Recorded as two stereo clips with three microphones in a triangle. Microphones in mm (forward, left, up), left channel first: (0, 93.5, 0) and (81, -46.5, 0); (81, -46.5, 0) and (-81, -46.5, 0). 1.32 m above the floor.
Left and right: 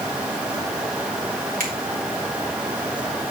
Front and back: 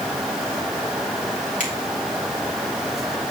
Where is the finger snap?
35° right, 3 m.